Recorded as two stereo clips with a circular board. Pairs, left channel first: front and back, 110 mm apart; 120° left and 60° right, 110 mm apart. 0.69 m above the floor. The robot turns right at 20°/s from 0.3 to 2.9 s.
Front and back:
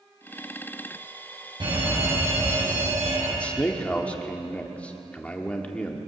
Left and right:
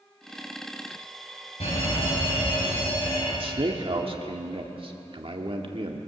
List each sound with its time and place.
1.6 s a fire alarm: 140° left, 7 m; by 3.3 s 165° left, 7 m
3.4 s a man speaking: 75° right, 1.8 m